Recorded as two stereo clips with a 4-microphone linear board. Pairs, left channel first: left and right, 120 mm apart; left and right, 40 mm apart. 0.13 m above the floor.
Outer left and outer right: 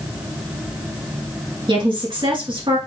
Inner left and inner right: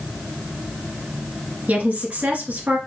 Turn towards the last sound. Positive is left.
turn(degrees=-40)  # may be behind; listen again after turning